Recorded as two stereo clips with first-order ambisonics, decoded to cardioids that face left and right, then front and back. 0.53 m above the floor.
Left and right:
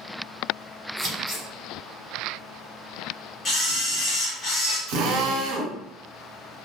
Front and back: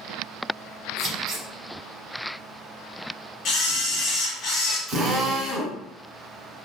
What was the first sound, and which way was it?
Scissors, 130° right.